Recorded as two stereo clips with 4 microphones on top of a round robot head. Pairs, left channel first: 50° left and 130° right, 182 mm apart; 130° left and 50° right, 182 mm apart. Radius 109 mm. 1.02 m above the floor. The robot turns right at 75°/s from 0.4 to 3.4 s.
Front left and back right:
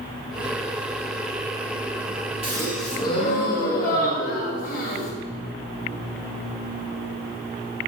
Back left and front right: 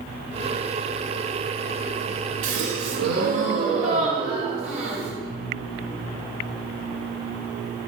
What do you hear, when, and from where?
2.4 s a gasp: 70° right, 2.0 m; by 5.1 s 5° left, 2.0 m